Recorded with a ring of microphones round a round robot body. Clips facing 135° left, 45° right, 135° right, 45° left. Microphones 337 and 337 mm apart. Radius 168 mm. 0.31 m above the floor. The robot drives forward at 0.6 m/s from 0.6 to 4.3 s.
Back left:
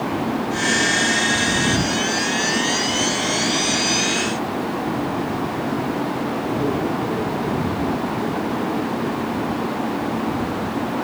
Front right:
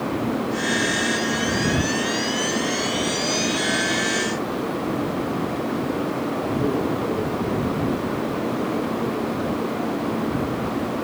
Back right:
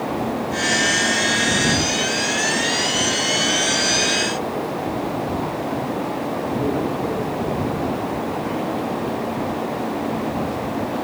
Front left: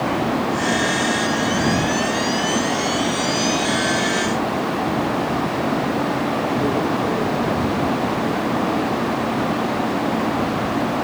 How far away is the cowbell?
I don't hear a cowbell.